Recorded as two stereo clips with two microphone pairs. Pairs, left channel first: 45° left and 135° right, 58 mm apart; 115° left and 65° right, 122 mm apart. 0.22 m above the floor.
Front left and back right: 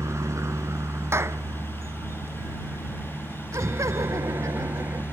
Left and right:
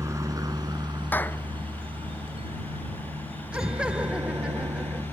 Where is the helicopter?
125° right; by 5.1 s 75° right.